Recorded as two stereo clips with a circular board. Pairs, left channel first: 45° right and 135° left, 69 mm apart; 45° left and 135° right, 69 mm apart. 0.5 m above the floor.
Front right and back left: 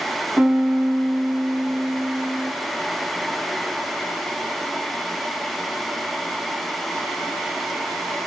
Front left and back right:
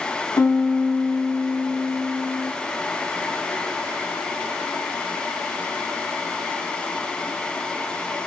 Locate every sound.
0.4 s a piano: 65° left, 0.5 m